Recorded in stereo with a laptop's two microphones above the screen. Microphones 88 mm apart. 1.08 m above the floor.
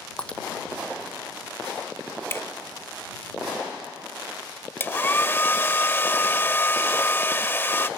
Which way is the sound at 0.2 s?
10° left (ahead or behind).